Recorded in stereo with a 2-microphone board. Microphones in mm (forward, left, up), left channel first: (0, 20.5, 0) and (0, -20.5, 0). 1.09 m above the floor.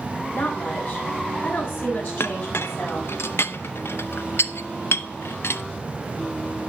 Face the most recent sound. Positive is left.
turn(degrees=80)